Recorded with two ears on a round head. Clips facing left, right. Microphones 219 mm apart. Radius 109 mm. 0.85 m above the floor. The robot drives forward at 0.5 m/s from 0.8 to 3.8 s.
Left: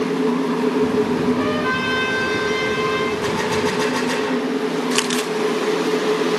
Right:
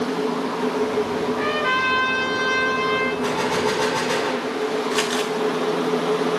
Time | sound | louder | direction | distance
1.3 | a trumpet | left 4 dB | 10° left (ahead or behind) | 7.5 m
3.2 | a gunshot | left 2 dB | 35° left (ahead or behind) | 7.5 m
4.9 | crumpling | left 2 dB | 40° left (ahead or behind) | 1.4 m